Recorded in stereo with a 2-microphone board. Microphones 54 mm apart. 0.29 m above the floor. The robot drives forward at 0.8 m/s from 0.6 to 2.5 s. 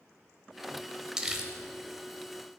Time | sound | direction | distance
1.2 | crumpling | 10° right (ahead or behind) | 0.9 m